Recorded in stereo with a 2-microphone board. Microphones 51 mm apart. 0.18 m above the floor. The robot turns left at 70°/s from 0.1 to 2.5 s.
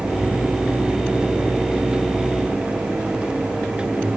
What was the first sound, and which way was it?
Only background noise.